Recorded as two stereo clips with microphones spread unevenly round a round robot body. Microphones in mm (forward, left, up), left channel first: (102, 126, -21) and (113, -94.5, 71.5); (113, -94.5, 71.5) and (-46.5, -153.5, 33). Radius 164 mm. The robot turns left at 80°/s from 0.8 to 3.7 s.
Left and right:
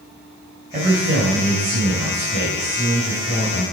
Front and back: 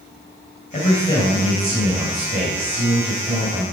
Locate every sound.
0.7 s a man speaking: 25° right, 3 m; by 3.6 s 110° left, 3 m